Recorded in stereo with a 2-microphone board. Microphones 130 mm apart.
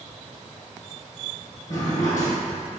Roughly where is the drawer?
Left.